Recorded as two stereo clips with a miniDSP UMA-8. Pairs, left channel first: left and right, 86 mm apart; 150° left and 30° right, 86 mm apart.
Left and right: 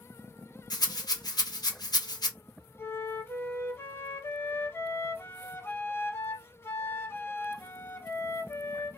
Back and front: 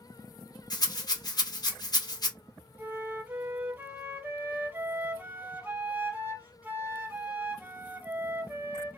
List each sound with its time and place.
0.7 s a rattle: 120° left, 0.7 m
2.8 s a flute: 35° left, 0.6 m